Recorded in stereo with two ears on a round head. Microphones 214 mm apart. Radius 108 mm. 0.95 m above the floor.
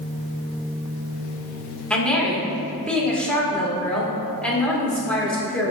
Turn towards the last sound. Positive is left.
turn(degrees=5)  # may be behind; listen again after turning